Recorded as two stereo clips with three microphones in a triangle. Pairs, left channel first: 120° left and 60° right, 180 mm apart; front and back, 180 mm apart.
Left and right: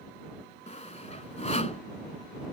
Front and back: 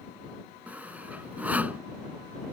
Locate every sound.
0.7 s sawing: 105° left